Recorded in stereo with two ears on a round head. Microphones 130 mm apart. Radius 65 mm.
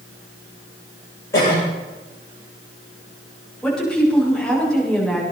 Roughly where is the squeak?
I don't hear a squeak.